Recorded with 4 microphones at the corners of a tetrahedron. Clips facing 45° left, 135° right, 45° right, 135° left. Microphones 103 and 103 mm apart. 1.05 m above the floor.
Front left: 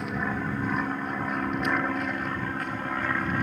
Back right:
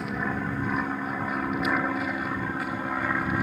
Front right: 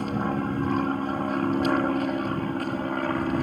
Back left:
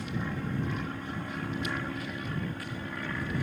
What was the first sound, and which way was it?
An aircraft, 45° right.